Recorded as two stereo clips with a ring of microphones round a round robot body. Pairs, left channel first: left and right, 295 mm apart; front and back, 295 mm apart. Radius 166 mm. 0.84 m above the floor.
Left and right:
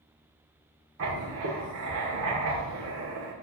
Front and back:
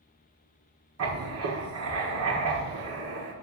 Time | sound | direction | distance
1.0 | writing | 140° right | 1.6 m